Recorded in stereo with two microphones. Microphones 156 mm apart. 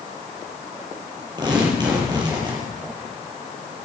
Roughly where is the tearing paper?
Right.